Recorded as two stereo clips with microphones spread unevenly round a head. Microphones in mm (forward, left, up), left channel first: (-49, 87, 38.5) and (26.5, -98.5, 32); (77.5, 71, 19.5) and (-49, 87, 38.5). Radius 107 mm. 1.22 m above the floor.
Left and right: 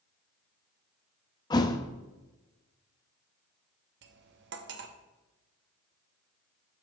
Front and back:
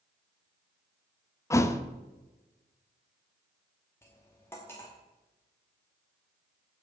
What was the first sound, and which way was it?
A thud, 55° left.